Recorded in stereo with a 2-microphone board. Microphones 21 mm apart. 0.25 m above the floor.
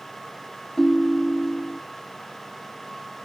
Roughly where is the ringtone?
Left.